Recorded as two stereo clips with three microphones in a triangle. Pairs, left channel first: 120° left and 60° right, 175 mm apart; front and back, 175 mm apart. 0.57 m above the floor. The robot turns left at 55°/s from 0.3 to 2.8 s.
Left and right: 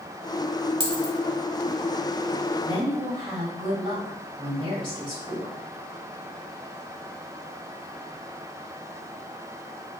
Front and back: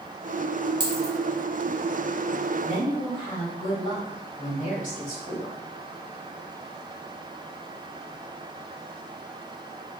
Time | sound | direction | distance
0.8 | a dropped coin | 115° right | 0.7 m
2.6 | a woman speaking | straight ahead | 1.6 m